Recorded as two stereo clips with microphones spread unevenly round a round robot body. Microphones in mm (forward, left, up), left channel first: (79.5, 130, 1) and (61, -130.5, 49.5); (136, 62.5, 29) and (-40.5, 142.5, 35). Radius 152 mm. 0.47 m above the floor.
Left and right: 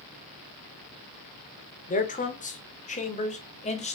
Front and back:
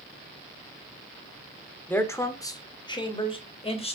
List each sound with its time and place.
1.9 s a man speaking: 50° left, 1.8 m; by 4.0 s 30° left, 2.5 m